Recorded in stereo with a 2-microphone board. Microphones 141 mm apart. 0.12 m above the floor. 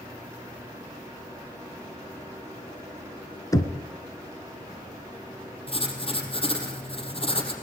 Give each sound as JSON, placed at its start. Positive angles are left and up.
{"t": 3.5, "sound": "knocking", "side_deg": 25, "distance_m": 1.5}
{"t": 5.7, "sound": "writing", "side_deg": 40, "distance_m": 4.0}